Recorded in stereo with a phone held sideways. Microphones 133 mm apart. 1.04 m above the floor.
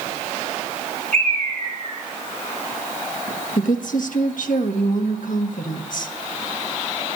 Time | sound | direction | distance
1.1 | a bird | 70° right (ahead or behind) | 6.5 m
3.6 | a woman speaking | 75° left (ahead or behind) | 1.5 m